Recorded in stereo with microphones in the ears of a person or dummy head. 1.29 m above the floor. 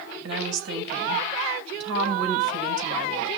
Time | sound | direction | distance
0.2 | a woman speaking | 70° right (ahead or behind) | 6 m